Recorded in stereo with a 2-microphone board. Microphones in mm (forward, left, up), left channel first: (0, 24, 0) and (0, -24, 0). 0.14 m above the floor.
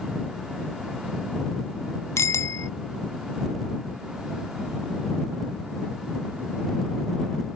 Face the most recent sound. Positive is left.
turn(degrees=70)  # may be behind; listen again after turning